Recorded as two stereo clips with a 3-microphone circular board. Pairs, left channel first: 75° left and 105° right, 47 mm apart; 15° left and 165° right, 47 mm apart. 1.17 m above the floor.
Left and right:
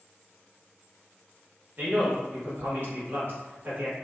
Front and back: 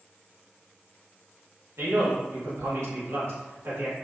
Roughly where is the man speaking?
Behind right.